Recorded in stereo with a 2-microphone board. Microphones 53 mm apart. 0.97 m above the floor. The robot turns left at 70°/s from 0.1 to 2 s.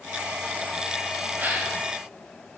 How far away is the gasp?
About 1.8 m.